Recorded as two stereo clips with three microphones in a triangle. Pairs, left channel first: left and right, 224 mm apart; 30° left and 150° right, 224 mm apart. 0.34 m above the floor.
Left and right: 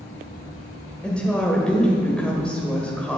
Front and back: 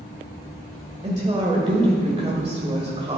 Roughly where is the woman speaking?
Behind.